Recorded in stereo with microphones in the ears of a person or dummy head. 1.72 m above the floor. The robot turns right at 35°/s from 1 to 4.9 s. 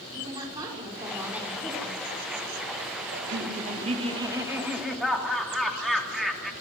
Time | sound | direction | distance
0.1 | a woman speaking | 20° right | 5.5 m
3.1 | laughter | 60° right | 3 m